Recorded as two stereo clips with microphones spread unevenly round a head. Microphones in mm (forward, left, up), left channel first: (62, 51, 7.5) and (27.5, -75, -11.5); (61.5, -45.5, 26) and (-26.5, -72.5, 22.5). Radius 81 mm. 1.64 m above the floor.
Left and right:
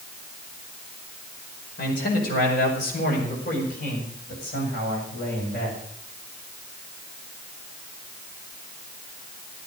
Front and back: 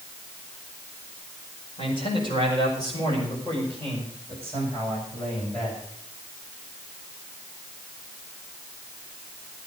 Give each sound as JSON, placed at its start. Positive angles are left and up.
{"t": 1.8, "sound": "a man speaking", "azimuth_deg": 75, "distance_m": 5.5}